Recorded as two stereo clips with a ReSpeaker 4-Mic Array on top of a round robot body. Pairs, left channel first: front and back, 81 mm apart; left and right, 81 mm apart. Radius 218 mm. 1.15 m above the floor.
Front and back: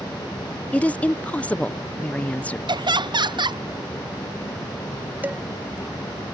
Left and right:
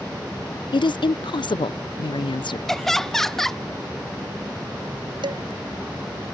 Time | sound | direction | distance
0.7 | a woman speaking | 75° left | ?
2.7 | laughter | 175° left | ?
5.2 | dishes clattering | 110° right | ?